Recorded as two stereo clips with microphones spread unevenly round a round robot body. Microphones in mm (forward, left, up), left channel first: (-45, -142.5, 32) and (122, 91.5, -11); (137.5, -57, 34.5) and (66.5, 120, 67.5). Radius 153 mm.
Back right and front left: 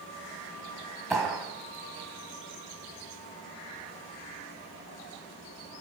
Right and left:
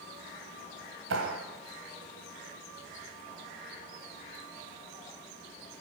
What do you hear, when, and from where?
1.1 s a clap: 140° left, 3 m